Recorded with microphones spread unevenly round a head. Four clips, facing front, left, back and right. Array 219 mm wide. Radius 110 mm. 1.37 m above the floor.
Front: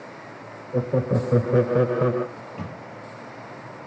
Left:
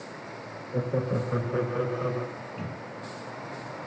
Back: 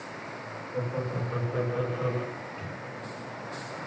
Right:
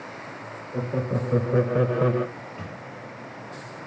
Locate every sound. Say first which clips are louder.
0.7 s laughter: even, front 9 dB; 5° left, 1.5 m; by 2.3 s 50° right, 1.3 m
2.4 s a microwave: even, front 3 dB; 15° left, 1.9 m